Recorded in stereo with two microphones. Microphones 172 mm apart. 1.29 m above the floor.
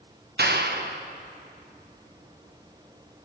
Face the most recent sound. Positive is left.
turn(degrees=-70)  # may be behind; listen again after turning